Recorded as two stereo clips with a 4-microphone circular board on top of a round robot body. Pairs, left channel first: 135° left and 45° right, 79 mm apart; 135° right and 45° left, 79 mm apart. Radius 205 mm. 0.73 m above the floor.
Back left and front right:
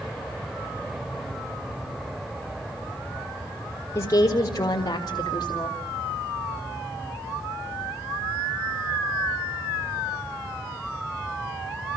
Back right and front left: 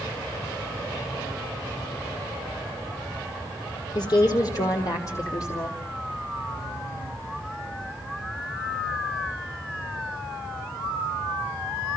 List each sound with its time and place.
4.0 s a woman speaking: 165° right, 2.5 m; by 5.8 s 175° left, 3.5 m